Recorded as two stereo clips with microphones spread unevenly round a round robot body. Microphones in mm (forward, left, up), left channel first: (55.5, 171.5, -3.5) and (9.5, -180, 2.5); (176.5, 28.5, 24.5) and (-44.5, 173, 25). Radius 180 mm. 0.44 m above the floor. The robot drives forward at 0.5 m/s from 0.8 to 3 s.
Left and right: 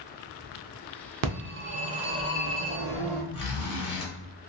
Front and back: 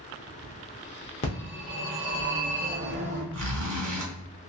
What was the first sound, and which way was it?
A phone ringing, 90° right.